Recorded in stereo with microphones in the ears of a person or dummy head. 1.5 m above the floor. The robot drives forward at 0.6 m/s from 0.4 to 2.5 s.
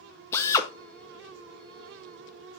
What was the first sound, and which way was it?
A drill, 20° left (ahead or behind).